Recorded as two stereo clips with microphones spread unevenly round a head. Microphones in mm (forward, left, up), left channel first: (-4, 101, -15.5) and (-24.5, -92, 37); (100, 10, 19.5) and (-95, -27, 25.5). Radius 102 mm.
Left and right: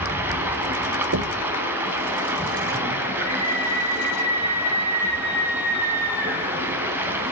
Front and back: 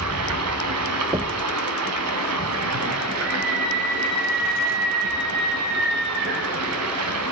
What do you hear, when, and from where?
0.0 s running water: 170° right, 3.5 m
1.1 s knocking: 100° right, 0.8 m
3.2 s a scream: 155° left, 5 m